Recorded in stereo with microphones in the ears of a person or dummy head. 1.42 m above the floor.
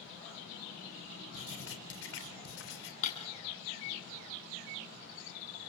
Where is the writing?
85° left, 3.5 m.